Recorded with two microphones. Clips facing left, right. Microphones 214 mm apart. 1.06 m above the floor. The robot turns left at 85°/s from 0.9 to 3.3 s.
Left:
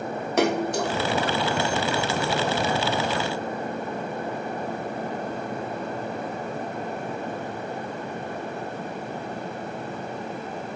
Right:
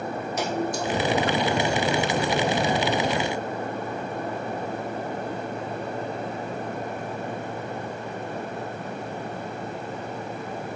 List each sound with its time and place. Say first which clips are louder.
0.4 s a splash: left 6 dB; 70° left (ahead or behind), 0.7 m